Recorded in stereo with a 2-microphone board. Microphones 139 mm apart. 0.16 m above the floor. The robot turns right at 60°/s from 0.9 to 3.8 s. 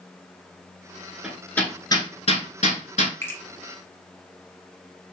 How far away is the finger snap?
About 1.1 m.